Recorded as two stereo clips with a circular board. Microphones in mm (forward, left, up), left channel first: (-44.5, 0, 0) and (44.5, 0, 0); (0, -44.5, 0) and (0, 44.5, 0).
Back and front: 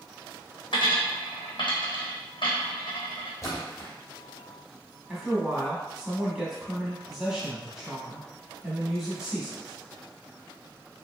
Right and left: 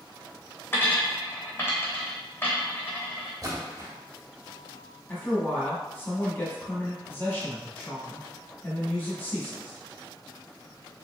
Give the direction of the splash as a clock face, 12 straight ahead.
8 o'clock.